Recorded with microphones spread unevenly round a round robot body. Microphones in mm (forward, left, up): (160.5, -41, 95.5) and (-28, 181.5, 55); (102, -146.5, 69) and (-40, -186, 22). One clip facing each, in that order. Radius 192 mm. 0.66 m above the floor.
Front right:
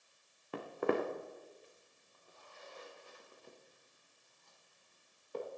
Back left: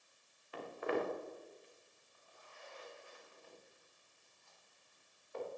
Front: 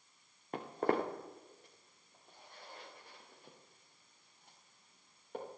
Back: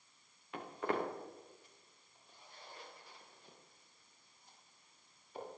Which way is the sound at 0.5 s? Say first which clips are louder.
Front right 4 dB, front 4 dB; 20° right.